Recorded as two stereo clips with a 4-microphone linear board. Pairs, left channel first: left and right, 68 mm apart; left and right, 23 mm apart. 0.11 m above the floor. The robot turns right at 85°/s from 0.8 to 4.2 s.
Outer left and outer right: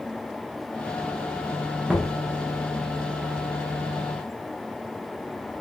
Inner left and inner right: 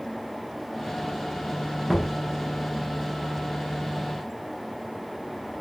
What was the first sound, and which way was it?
Knocking, 5° right (ahead or behind).